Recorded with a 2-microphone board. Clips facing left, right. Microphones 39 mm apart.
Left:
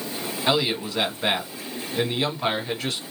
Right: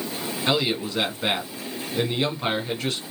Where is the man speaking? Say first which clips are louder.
Left 1 dB; 5° left (ahead or behind), 3 m.